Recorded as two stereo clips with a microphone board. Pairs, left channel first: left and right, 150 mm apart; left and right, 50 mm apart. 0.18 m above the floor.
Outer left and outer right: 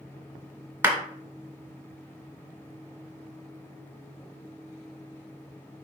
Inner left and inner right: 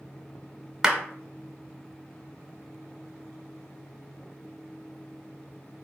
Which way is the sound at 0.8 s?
15° right (ahead or behind).